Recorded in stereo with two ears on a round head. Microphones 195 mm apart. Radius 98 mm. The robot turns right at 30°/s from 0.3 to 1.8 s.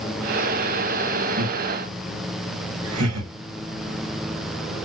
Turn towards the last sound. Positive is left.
turn(degrees=-85)